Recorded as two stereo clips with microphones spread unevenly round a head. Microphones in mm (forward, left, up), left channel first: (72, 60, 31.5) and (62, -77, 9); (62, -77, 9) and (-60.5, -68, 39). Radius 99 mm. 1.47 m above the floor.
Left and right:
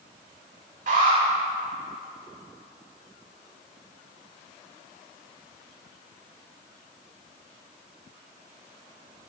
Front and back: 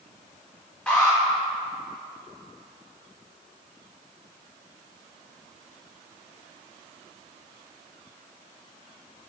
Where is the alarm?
85° right, 6 m.